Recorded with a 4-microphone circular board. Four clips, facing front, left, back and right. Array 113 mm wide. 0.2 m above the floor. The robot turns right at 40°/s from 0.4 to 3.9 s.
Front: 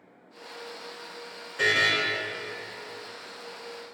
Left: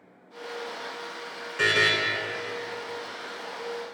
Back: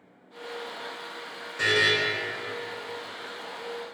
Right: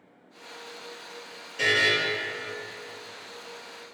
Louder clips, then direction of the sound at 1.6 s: Left 1 dB, back 1 dB; 90° left.